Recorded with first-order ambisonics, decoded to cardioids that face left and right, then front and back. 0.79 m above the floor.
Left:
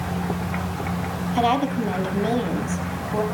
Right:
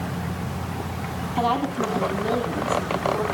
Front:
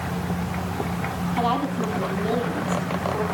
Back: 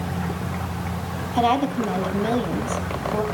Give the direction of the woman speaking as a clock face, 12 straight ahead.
7 o'clock.